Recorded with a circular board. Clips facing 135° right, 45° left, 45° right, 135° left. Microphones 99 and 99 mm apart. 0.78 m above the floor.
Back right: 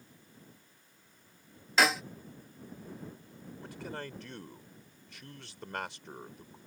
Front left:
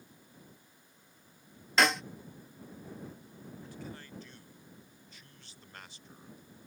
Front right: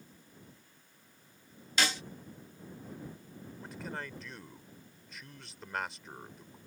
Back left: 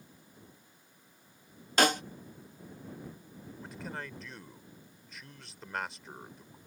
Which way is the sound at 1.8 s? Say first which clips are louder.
Even, back left 7 dB; 140° left.